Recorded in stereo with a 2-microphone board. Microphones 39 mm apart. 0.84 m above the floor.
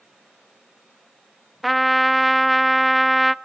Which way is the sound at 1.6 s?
Centre (ahead or behind).